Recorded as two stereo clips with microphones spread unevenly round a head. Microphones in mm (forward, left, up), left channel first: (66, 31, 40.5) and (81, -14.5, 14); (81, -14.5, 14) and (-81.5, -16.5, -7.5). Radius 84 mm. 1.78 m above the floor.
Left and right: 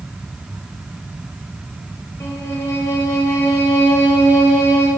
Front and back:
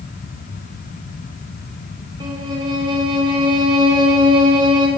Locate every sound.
2.2 s a violin: 115° left, 1.7 m